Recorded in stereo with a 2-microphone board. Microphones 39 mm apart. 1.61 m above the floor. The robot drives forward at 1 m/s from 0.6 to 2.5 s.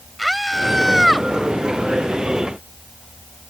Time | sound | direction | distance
0.2 | a scream | 5° right (ahead or behind) | ?